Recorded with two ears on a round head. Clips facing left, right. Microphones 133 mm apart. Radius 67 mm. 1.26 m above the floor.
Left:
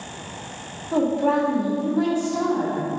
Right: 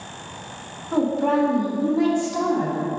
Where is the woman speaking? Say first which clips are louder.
Even; 10° left (ahead or behind), 2 m; by 2.8 s 20° right (ahead or behind), 1.7 m.